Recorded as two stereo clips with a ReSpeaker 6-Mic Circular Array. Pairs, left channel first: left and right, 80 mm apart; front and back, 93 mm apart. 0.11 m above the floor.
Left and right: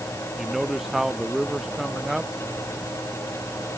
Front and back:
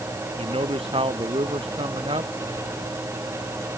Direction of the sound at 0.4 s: 175° right.